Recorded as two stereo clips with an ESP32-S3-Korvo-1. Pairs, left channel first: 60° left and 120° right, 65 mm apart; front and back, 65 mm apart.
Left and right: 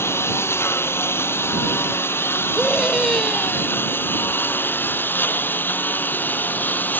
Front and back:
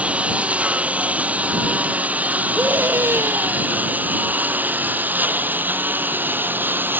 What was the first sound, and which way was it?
A lawn mower, 110° left.